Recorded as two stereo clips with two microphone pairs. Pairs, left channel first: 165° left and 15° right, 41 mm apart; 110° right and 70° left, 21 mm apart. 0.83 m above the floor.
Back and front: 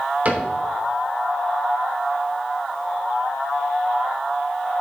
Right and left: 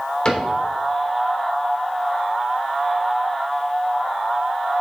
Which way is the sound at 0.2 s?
65° right.